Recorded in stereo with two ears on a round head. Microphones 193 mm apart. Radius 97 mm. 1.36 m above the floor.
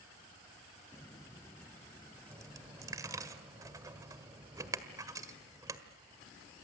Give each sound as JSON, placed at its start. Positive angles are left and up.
{"t": 0.9, "sound": "footsteps", "side_deg": 15, "distance_m": 1.4}
{"t": 2.3, "sound": "a dropped coin", "side_deg": -15, "distance_m": 1.6}